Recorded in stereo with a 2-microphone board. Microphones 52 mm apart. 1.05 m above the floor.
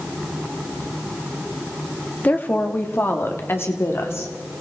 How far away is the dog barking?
I don't hear a dog barking.